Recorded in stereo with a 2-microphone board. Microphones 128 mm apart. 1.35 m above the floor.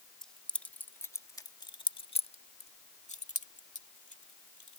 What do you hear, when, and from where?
0.2 s keys jangling: 5° left (ahead or behind); by 4.8 s 70° left (ahead or behind)